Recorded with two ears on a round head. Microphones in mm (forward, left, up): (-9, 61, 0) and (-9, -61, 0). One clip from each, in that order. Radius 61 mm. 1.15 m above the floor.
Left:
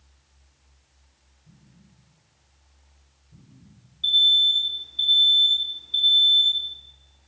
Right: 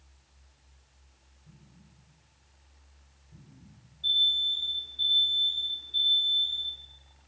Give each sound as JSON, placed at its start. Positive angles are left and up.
{"t": 1.4, "sound": "an explosion", "side_deg": -60, "distance_m": 5.5}
{"t": 4.0, "sound": "an alarm", "side_deg": 55, "distance_m": 4.5}